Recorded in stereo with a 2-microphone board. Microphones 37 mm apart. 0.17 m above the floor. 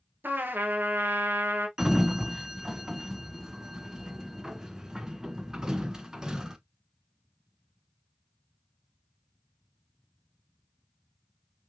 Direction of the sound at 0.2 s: 65° right (ahead or behind).